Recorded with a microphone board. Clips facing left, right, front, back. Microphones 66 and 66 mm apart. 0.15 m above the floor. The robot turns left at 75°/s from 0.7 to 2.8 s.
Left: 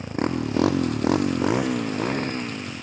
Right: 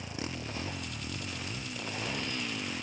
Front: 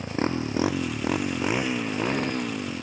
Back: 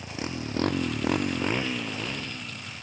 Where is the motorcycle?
40° left; by 2.8 s 5° left.